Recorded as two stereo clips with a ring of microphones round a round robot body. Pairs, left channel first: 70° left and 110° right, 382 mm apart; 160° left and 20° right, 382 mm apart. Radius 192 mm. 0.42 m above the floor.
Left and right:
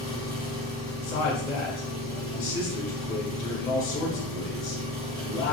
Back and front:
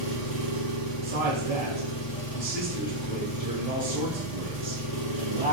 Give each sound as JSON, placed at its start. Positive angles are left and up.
{"t": 0.0, "sound": "an engine running", "azimuth_deg": -145, "distance_m": 1.2}
{"t": 1.0, "sound": "a man speaking", "azimuth_deg": 30, "distance_m": 1.1}